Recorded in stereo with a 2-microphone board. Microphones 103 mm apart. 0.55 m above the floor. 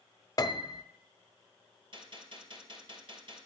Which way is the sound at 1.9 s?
50° right (ahead or behind).